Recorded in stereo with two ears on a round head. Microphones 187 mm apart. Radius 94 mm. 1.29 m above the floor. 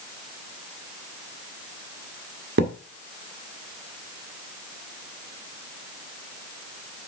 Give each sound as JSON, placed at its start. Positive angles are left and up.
{"t": 2.6, "sound": "a thud", "side_deg": -55, "distance_m": 1.5}